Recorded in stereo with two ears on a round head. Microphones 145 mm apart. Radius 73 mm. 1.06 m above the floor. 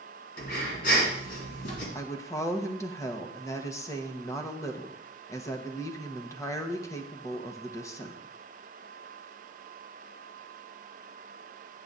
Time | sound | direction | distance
0.4 | breathing | 60° left (ahead or behind) | 2.5 m
1.9 | a woman speaking | 20° left (ahead or behind) | 1.1 m